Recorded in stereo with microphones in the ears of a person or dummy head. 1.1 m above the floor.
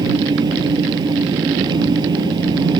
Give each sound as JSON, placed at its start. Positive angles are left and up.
{"t": 0.0, "sound": "an engine running", "side_deg": -25}